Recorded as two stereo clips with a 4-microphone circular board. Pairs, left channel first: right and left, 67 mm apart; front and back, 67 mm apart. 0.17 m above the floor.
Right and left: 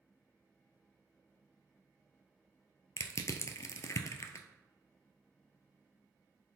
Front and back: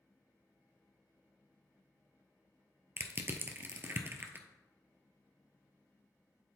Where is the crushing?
125° right, 0.6 m.